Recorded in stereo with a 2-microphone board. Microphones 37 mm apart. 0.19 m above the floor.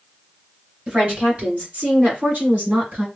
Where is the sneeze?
No sneeze in this recording.